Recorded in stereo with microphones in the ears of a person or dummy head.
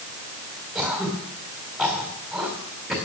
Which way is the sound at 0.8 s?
Centre (ahead or behind).